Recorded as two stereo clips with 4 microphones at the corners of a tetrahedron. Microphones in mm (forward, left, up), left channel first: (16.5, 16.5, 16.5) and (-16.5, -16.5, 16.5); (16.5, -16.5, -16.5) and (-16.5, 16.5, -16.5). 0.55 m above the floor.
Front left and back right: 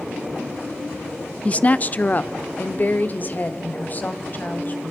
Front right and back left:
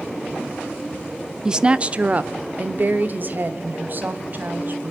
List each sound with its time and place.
1.4 s a woman speaking: 75° left, 0.7 m; by 4.9 s 95° left, 3.5 m